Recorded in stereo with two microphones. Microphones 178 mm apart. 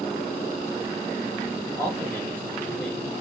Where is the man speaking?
15° left (ahead or behind), 1.3 m; by 3.2 s centre (ahead or behind), 1.3 m.